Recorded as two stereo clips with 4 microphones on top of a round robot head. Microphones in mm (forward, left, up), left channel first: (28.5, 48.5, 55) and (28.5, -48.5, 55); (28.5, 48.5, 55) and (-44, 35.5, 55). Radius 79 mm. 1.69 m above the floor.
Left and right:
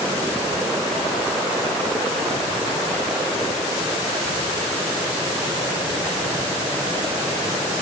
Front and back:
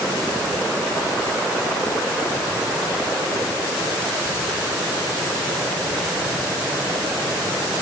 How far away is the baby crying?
No baby crying in this recording.